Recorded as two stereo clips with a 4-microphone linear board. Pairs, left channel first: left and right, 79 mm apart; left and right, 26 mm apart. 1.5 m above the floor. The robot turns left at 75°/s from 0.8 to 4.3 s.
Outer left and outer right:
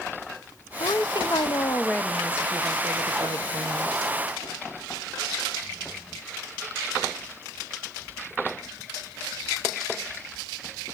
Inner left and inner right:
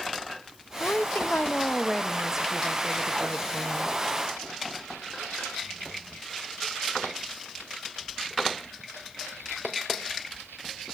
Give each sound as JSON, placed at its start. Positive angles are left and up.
{"t": 0.8, "sound": "a woman speaking", "azimuth_deg": 105, "distance_m": 0.7}